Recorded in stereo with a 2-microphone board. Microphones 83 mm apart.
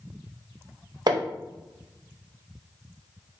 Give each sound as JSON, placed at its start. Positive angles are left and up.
{"t": 1.1, "sound": "hammering", "side_deg": -55, "distance_m": 0.6}